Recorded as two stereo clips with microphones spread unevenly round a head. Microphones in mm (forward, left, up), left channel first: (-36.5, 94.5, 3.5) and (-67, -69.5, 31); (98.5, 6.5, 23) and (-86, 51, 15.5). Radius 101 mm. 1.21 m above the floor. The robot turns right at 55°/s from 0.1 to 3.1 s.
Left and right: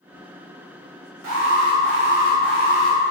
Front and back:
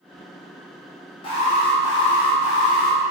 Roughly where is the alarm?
Right.